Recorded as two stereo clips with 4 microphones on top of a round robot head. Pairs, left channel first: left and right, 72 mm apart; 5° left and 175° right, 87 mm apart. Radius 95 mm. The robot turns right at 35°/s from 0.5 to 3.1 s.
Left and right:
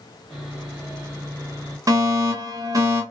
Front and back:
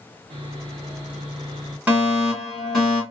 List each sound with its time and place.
0.3 s sawing: straight behind, 1.5 m; by 1.8 s 135° right, 1.5 m
1.9 s a fire alarm: 110° right, 1.8 m; by 3.0 s 70° right, 1.8 m